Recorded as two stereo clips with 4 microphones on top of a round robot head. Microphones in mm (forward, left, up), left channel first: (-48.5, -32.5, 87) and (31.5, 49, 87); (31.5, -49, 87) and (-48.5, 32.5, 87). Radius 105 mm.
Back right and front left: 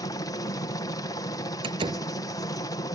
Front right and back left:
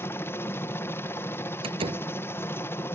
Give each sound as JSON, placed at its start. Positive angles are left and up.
{"t": 0.0, "sound": "a helicopter", "azimuth_deg": -100}
{"t": 1.6, "sound": "a door slam", "azimuth_deg": 90}